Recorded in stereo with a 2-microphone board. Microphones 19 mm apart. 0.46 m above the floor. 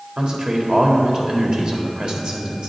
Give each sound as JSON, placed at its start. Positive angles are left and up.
{"t": 0.2, "sound": "a man speaking", "side_deg": -55, "distance_m": 1.6}